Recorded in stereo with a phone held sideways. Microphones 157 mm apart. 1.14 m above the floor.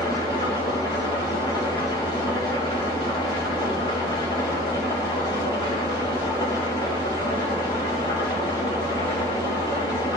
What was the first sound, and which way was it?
An engine running, 25° left (ahead or behind).